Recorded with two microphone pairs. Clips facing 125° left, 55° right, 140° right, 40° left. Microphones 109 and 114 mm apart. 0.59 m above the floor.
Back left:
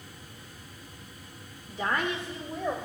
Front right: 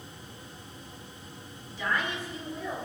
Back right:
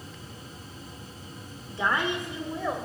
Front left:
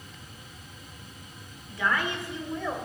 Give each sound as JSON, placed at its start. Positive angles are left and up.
{"t": 1.7, "sound": "a woman speaking", "azimuth_deg": 165, "distance_m": 1.4}